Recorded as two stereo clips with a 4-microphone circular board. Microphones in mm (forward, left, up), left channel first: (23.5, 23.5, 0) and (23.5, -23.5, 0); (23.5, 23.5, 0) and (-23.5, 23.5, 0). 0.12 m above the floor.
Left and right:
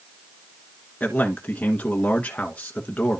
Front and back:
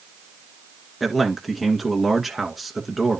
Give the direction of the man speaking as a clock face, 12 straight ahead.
9 o'clock.